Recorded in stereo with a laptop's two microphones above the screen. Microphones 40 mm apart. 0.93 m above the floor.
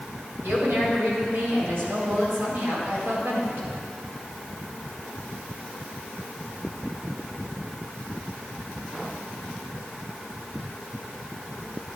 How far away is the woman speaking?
About 4 m.